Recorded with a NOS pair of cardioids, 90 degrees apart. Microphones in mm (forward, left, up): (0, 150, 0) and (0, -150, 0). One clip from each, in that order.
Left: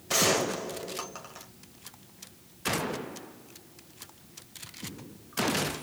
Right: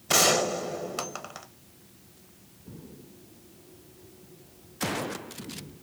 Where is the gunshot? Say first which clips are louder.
Right 3 dB; 40° right, 1.2 m.